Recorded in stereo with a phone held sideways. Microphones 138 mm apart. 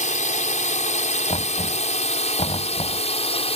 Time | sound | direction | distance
0.0 | a drone | 70° left (ahead or behind) | ?
1.3 | knocking | 45° left (ahead or behind) | ?